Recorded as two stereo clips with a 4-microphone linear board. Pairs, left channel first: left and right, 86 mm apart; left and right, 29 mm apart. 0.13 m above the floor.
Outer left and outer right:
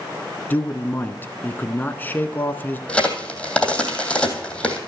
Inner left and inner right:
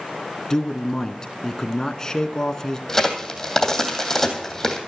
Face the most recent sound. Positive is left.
turn(degrees=10)  # may be behind; listen again after turning